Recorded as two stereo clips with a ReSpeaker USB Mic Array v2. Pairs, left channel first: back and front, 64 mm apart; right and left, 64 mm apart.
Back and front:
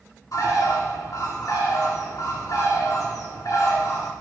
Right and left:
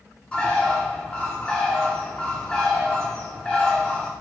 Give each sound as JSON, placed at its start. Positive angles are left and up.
{"t": 0.3, "sound": "a bird", "azimuth_deg": -165, "distance_m": 2.5}